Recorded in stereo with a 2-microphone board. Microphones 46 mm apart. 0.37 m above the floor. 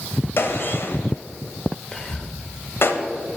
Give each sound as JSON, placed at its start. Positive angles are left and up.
{"t": 0.4, "sound": "a gunshot", "side_deg": 60, "distance_m": 0.8}
{"t": 1.9, "sound": "whispering", "side_deg": 20, "distance_m": 0.8}